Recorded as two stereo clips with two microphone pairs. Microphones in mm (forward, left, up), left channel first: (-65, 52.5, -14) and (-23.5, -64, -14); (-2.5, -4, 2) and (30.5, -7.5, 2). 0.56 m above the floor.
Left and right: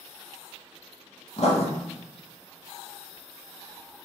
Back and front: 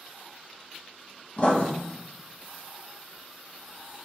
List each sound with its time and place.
1.4 s writing: 130° left, 0.7 m